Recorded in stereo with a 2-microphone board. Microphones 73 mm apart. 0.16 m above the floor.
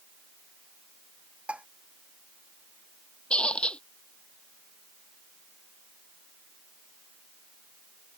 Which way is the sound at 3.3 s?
15° left (ahead or behind).